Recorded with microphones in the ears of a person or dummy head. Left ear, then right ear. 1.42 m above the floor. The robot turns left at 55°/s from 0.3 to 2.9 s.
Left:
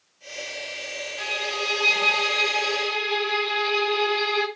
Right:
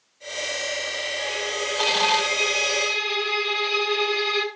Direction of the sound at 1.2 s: 70° left.